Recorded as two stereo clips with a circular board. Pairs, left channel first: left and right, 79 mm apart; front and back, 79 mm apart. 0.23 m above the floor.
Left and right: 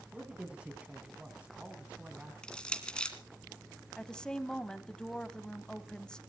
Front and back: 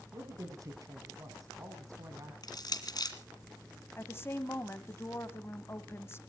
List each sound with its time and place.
0.1 s a man speaking: 160° right, 2 m
2.4 s crushing: 15° left, 1.8 m
4.0 s a woman speaking: 20° left, 1.1 m